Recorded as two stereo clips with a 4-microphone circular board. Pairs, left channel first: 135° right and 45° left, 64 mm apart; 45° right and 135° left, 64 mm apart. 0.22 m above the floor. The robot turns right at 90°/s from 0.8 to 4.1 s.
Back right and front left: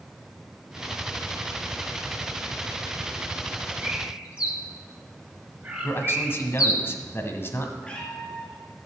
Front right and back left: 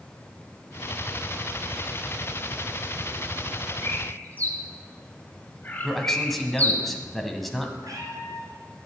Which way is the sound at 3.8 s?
35° right.